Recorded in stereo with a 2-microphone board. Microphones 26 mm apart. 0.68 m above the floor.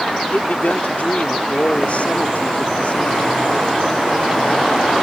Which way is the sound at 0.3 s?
65° left (ahead or behind).